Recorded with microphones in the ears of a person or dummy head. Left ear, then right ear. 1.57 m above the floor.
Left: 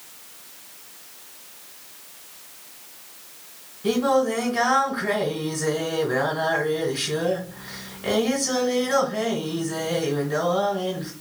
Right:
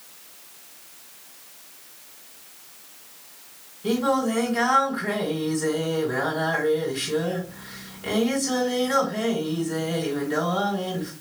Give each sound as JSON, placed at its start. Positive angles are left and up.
{"t": 3.8, "sound": "singing", "side_deg": 0, "distance_m": 1.7}